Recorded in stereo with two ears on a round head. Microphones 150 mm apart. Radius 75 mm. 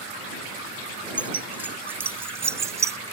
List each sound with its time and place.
1.2 s keys jangling: 10° right (ahead or behind); by 3.0 s 20° right (ahead or behind)